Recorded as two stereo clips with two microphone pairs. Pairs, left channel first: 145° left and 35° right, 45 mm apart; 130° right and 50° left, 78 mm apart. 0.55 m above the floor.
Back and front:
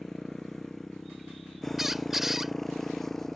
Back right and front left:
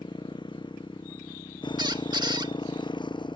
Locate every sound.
0.0 s a motorcycle: 130° right
1.8 s a squeak: 50° left